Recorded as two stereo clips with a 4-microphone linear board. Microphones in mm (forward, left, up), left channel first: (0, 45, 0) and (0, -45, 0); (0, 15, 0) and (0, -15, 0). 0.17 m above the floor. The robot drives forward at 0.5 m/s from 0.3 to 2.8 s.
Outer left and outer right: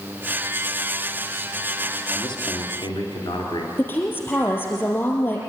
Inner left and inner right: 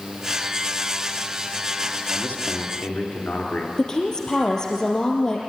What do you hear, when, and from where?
2.1 s a man speaking: 60° left (ahead or behind), 3 m
3.8 s a woman speaking: 25° left (ahead or behind), 5 m